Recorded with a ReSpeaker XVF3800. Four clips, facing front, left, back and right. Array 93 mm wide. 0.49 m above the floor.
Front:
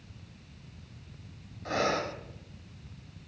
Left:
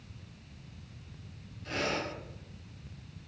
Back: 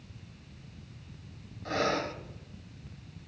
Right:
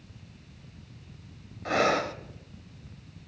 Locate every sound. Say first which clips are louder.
1.6 s breathing: right 9 dB, front 1 dB; 85° right, 0.7 m